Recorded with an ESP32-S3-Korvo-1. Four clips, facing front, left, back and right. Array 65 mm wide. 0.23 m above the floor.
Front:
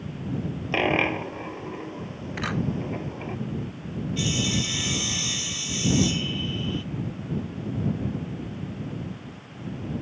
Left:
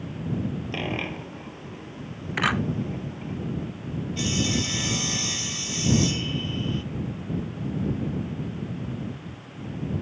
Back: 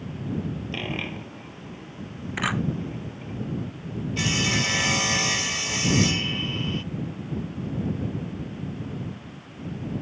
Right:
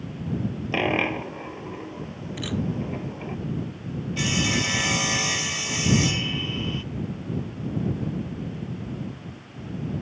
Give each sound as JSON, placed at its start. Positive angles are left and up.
{"t": 0.7, "sound": "a dropped coin", "azimuth_deg": -35}
{"t": 2.4, "sound": "a camera shutter", "azimuth_deg": 110}
{"t": 4.2, "sound": "sawing", "azimuth_deg": -145}